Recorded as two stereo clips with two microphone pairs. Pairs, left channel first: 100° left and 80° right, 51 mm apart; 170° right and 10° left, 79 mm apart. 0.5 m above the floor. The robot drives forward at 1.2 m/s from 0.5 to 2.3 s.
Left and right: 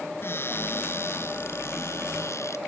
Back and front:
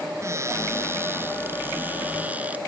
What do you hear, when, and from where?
0.2 s a cupboard door: 65° left; by 2.6 s 80° left